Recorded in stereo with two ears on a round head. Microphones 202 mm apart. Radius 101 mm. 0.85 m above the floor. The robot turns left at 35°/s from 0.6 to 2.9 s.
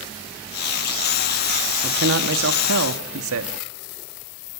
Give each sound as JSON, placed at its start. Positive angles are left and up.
{"t": 1.8, "sound": "a man speaking", "azimuth_deg": -55, "distance_m": 1.6}